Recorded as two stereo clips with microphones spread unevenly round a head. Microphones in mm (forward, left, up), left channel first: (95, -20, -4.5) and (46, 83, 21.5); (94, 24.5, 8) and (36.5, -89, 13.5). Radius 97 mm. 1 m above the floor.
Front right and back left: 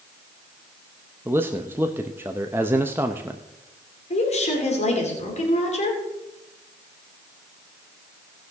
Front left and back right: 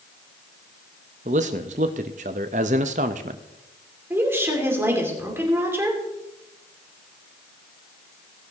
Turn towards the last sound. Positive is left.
turn(degrees=-45)